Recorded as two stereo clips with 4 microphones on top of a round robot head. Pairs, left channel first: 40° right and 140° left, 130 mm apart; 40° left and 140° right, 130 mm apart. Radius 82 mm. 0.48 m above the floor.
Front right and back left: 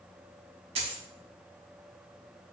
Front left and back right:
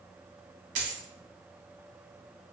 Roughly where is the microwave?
I don't hear a microwave.